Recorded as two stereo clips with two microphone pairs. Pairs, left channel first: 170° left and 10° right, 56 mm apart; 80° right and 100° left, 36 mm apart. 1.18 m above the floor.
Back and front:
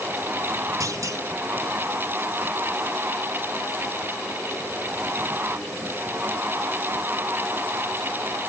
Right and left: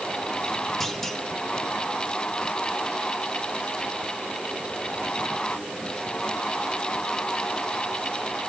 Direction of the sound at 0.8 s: 5° left.